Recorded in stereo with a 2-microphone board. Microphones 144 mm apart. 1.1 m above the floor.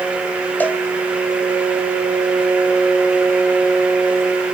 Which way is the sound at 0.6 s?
15° left (ahead or behind).